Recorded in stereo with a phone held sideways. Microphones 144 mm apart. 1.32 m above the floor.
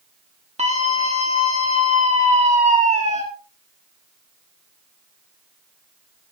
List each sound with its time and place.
0.6 s a scream: 50° right (ahead or behind), 1.4 m